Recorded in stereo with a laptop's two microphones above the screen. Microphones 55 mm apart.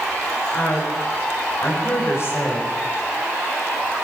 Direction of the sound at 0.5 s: 70° left (ahead or behind).